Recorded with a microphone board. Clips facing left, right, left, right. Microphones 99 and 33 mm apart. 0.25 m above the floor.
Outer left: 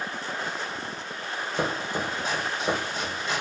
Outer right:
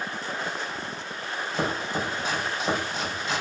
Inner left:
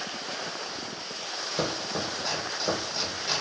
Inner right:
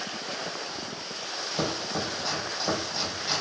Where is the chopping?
Centre (ahead or behind), 3.5 m.